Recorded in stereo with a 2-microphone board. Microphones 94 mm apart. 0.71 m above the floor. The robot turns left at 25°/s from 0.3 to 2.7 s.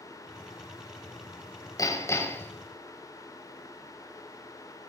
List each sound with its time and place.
1.8 s hammering: 35° left (ahead or behind), 4 m; by 2.5 s 20° left (ahead or behind), 4 m